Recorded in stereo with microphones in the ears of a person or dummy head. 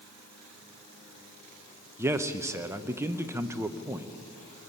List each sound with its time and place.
2.0 s a man speaking: 10° right (ahead or behind), 0.7 m